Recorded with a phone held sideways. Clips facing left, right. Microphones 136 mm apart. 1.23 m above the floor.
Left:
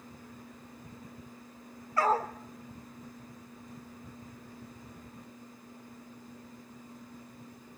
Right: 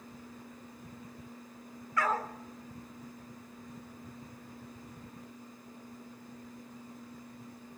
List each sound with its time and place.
2.0 s a dog barking: 35° left (ahead or behind), 1.5 m